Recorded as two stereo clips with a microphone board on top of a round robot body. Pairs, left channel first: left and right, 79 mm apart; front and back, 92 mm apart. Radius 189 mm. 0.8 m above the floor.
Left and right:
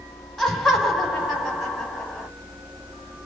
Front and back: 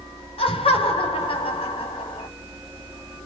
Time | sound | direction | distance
0.4 | laughter | straight ahead | 2.5 m